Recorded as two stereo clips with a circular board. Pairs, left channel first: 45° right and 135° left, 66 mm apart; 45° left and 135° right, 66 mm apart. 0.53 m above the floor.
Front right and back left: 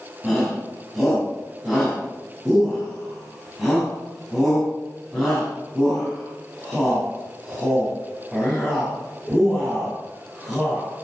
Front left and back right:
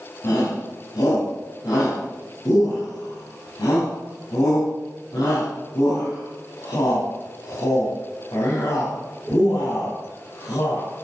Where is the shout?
45° left, 3.5 m.